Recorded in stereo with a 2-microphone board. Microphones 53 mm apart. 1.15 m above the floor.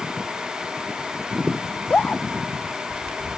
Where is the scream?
25° left (ahead or behind).